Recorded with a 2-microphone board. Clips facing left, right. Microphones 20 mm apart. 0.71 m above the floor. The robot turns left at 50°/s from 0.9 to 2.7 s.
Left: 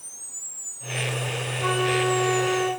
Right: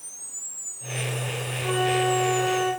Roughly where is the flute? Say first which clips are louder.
Even; left.